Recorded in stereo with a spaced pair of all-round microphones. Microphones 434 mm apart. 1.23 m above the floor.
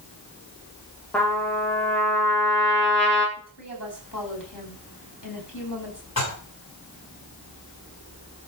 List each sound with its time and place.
1.1 s a trumpet: 5° left (ahead or behind), 3.5 m
3.4 s a woman speaking: 45° left (ahead or behind), 8 m
6.2 s dishes clattering: 35° left (ahead or behind), 7 m